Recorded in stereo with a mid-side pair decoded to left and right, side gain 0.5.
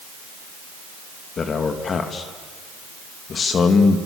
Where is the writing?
No writing in this recording.